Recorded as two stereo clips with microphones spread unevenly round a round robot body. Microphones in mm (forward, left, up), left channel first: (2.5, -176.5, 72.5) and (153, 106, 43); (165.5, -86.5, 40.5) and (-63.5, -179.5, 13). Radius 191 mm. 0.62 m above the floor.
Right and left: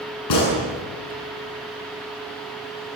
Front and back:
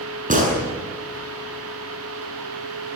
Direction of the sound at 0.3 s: 100° right.